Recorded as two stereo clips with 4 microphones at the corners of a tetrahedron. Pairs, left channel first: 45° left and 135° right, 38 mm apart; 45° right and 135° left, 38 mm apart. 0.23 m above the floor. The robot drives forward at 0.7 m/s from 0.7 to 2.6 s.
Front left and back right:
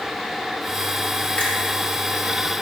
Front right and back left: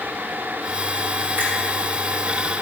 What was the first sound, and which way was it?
A finger snap, 110° left.